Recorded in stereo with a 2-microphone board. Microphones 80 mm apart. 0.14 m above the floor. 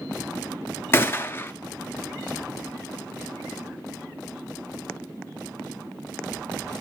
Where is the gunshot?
30° left (ahead or behind), 0.5 m.